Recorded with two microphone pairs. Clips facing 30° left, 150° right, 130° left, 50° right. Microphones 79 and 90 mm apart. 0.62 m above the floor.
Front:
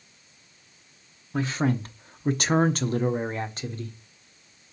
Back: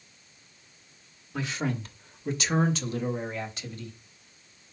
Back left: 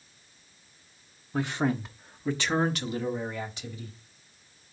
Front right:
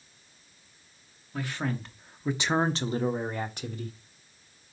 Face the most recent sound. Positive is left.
turn(degrees=-20)